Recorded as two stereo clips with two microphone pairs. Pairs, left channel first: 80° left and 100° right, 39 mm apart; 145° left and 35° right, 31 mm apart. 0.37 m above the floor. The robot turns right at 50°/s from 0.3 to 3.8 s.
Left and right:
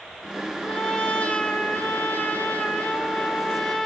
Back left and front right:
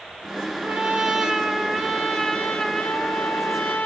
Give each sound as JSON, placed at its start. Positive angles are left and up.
{"t": 0.6, "sound": "a trumpet", "azimuth_deg": 5, "distance_m": 1.3}